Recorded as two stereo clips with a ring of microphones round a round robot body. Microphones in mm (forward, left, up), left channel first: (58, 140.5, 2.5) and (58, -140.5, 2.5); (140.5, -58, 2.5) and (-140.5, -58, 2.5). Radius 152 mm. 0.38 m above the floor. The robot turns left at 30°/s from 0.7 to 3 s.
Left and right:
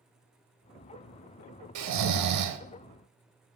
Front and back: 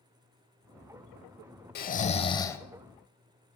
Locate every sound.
1.8 s snoring: 55° right, 0.7 m; by 2.6 s 85° right, 0.7 m